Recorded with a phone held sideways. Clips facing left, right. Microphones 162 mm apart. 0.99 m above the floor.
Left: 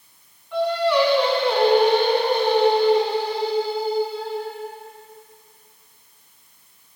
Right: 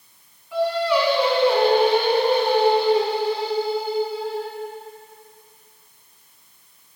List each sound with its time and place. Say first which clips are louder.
0.5 s singing: left 1 dB; 5° right (ahead or behind), 4 m